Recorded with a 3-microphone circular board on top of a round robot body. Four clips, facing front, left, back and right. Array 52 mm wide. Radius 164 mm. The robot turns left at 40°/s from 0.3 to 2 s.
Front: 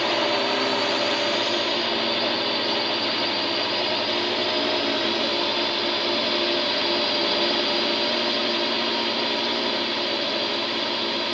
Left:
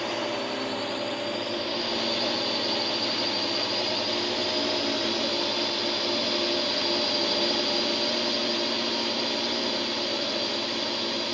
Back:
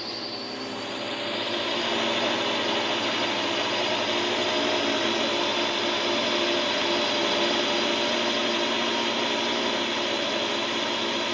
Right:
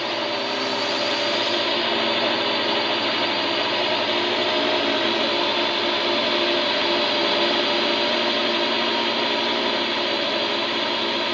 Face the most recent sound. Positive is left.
turn(degrees=-95)